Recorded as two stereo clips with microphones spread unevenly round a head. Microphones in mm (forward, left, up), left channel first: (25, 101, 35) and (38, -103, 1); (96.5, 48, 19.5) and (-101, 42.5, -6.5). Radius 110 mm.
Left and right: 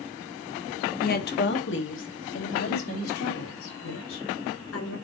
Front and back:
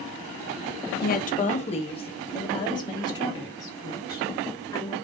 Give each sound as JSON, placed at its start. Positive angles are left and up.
{"t": 1.0, "sound": "a woman speaking", "azimuth_deg": 40, "distance_m": 1.3}